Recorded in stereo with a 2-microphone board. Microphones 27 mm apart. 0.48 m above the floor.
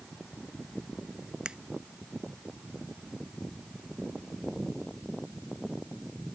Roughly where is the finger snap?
Right.